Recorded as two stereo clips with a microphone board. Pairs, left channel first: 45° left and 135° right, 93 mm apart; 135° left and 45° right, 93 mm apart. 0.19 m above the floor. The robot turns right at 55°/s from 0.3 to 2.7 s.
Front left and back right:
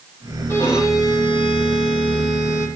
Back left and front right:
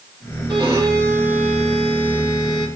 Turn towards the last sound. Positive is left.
turn(degrees=105)